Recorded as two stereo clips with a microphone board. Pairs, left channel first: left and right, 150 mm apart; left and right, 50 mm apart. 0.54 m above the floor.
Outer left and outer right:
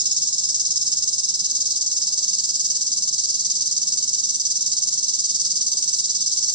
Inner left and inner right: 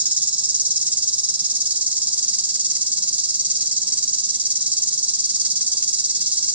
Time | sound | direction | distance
0.0 | an insect | 30° right (ahead or behind) | 0.9 m